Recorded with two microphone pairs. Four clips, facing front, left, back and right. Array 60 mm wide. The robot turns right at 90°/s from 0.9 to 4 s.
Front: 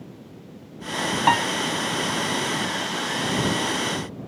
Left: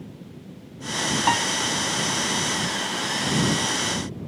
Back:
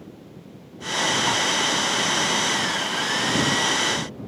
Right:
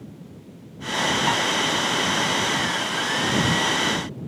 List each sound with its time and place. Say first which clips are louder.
1.3 s a piano: left 5 dB, front 5 dB; 10° left; by 1.5 s 30° left